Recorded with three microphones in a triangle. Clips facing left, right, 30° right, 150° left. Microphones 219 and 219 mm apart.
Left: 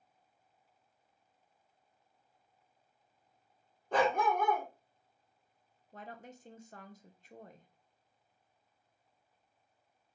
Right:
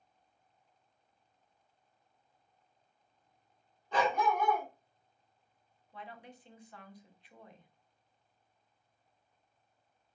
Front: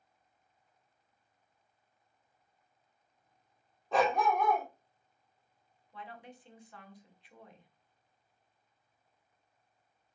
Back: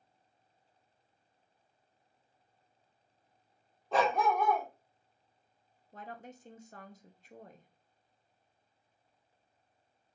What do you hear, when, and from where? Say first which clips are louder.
3.9 s a dog barking: left 1 dB, even; 60° left, 1.0 m
5.9 s a woman speaking: left 1 dB, back 2 dB; 120° left, 0.5 m